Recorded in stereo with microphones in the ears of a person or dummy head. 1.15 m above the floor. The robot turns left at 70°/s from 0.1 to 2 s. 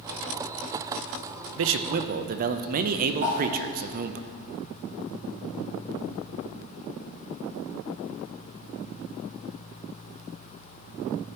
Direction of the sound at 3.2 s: 40° right (ahead or behind).